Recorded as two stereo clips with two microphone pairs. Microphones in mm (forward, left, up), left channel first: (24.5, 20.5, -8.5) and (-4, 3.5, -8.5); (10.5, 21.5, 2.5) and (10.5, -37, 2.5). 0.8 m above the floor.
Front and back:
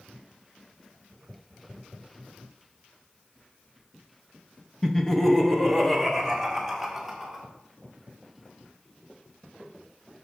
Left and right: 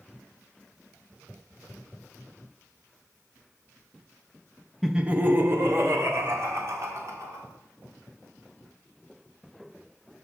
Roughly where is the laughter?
Ahead.